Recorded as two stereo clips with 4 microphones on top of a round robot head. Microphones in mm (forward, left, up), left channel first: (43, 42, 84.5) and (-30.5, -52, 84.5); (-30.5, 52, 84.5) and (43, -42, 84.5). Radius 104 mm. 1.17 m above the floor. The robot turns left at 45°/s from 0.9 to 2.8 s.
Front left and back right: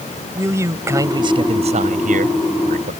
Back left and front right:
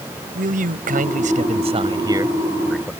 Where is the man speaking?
60° right; by 2.9 s 145° right.